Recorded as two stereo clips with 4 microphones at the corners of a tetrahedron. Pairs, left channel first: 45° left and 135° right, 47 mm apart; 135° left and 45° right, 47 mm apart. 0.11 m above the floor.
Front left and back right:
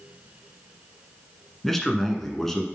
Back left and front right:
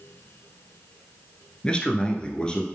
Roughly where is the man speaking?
Behind left.